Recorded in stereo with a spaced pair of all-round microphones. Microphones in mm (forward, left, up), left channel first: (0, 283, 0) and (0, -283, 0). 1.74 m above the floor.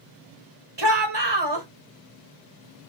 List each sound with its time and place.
0.8 s a shout: 45° right (ahead or behind), 1.3 m